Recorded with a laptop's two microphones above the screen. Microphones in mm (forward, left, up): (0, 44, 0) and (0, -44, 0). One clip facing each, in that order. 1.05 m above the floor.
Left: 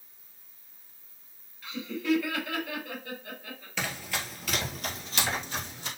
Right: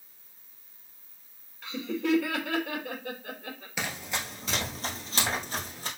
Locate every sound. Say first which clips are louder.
1.6 s laughter: right 1 dB; 70° right (ahead or behind), 1.8 m
3.8 s running footsteps: left 1 dB; 15° right (ahead or behind), 1.2 m; by 5.9 s 40° right (ahead or behind), 2 m